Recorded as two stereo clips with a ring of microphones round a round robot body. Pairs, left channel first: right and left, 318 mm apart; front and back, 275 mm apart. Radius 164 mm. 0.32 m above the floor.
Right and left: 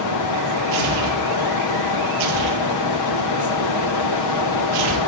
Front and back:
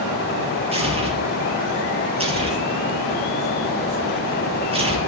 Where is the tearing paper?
110° left, 7.5 m.